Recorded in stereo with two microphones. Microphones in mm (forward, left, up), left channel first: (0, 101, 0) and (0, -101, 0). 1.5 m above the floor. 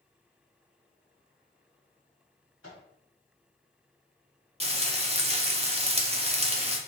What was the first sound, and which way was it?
A microwave, 85° left.